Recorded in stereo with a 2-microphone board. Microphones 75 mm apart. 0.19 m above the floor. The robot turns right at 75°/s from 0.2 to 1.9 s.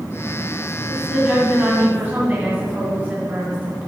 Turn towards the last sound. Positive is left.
turn(degrees=-25)  # may be behind; listen again after turning